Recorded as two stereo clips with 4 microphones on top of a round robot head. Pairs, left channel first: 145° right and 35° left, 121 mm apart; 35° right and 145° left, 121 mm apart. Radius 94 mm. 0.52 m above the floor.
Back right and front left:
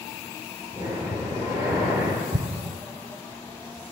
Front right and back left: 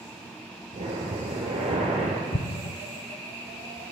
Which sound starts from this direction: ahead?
An explosion, at 2.3 s.